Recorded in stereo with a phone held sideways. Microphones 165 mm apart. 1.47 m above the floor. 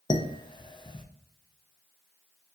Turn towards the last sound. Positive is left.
turn(degrees=30)  # may be behind; listen again after turning